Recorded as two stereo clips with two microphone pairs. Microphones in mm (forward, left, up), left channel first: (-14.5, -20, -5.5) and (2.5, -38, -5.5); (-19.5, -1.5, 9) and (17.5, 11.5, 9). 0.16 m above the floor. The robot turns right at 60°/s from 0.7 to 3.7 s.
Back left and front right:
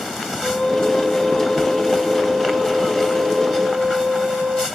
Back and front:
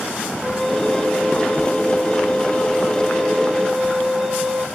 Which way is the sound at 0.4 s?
125° left.